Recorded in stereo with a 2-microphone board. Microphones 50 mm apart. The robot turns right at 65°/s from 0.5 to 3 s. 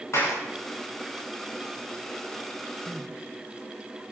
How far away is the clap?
About 7.5 m.